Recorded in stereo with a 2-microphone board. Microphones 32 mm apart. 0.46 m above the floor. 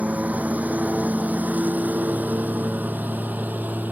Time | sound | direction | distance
0.0 | a lawn mower | 60° right (ahead or behind) | ?